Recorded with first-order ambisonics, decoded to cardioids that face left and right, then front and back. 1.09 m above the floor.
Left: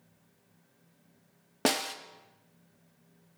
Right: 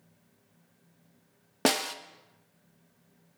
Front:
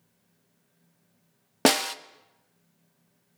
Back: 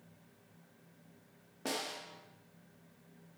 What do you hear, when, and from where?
1.6 s a snare drum: 5° right, 0.5 m